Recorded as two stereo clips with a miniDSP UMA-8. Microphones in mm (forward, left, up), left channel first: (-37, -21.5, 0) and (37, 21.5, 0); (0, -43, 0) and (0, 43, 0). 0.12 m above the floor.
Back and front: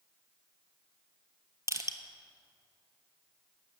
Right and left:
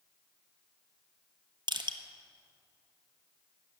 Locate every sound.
1.7 s crushing: 80° left, 1.1 m